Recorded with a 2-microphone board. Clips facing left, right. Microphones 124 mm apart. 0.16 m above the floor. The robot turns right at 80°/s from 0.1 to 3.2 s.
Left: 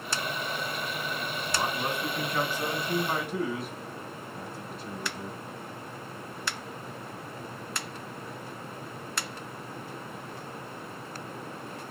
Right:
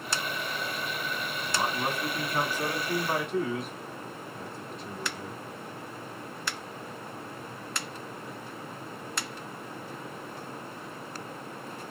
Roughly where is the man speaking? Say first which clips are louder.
Right 1 dB; centre.